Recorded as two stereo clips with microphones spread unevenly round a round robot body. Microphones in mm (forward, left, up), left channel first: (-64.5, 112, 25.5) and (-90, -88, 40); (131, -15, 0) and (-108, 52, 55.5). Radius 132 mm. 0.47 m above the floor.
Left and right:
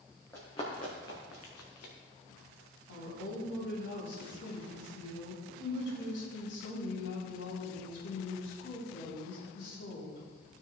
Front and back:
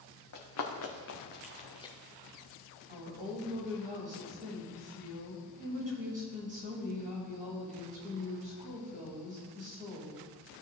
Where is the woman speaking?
100° left, 3.5 m.